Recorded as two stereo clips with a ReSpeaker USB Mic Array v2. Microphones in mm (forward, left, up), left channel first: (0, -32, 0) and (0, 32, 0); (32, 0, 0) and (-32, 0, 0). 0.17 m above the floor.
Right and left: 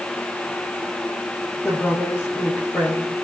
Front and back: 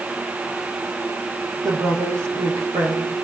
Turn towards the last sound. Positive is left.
turn(degrees=-155)